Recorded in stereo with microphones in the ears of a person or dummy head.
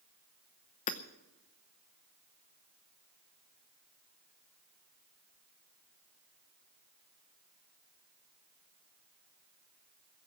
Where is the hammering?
35° left (ahead or behind), 0.7 m.